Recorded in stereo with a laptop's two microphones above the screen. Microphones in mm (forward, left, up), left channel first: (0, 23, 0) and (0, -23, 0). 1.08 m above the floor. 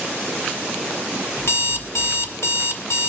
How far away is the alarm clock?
About 1.8 m.